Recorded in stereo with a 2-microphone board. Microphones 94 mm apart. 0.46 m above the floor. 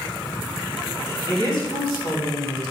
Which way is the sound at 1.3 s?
65° left (ahead or behind).